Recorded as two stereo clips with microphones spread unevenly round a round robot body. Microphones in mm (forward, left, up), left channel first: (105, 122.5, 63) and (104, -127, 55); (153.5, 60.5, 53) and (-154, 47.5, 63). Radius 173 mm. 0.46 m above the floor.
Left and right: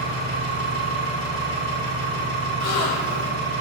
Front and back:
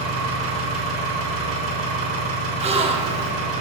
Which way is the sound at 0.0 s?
150° right.